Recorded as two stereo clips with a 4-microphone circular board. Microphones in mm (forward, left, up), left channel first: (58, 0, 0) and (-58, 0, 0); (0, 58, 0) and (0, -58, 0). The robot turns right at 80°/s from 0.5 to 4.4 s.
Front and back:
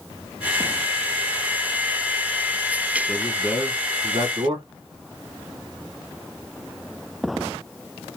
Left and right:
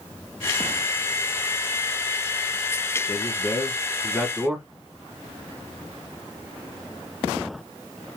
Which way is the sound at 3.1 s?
85° left.